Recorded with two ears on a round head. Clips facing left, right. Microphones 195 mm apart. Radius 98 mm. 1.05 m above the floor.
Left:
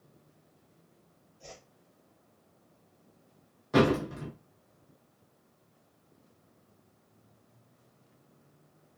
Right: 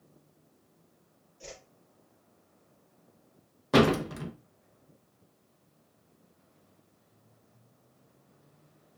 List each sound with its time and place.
1.4 s a whoosh: 70° right (ahead or behind), 2.0 m
3.7 s a door slam: 65° right (ahead or behind), 0.9 m